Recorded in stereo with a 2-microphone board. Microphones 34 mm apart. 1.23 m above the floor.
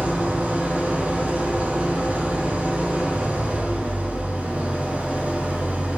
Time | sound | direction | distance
0.0 | an engine running | 45° right (ahead or behind) | 3.5 m